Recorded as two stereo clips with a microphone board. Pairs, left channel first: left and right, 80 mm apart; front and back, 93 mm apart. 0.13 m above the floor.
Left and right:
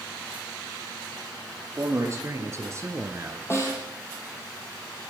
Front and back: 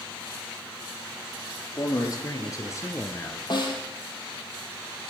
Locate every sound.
1.8 s a man speaking: 40° right, 3 m; by 3.4 s 55° right, 1.5 m
3.5 s a snare drum: 35° left, 3 m